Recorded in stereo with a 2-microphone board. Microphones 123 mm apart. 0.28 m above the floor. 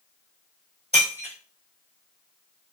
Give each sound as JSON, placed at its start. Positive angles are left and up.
{"t": 0.9, "sound": "breaking glass", "side_deg": -75, "distance_m": 1.3}